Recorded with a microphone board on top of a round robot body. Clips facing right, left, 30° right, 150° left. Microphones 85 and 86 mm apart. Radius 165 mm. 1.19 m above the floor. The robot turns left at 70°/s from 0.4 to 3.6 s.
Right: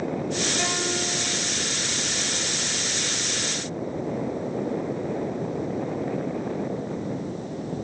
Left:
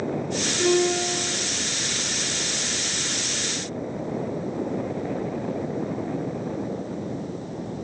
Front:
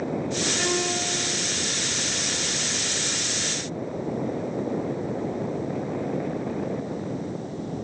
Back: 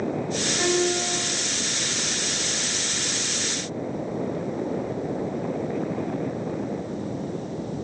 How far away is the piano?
About 1.5 m.